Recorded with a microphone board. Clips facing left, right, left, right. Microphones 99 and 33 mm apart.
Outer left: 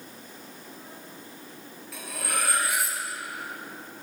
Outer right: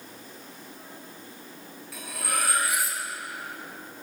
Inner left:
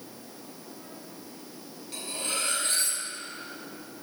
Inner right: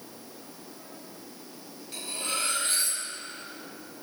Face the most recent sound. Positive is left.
turn(degrees=0)  # may be behind; listen again after turning